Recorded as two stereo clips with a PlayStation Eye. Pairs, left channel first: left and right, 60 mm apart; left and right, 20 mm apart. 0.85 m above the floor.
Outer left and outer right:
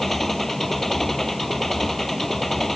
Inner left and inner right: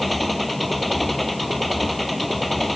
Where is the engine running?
5° left (ahead or behind).